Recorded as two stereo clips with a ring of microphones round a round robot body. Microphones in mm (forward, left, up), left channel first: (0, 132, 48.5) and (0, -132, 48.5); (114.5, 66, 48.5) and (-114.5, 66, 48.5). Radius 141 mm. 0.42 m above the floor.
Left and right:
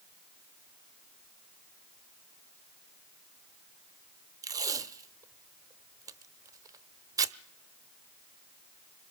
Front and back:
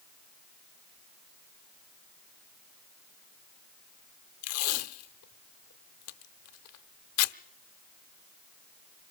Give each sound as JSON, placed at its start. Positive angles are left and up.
{"t": 4.4, "sound": "tape being pulled", "azimuth_deg": -15, "distance_m": 0.6}